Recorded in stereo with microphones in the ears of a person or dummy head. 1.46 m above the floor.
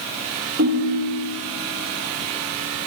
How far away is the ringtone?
About 1.0 m.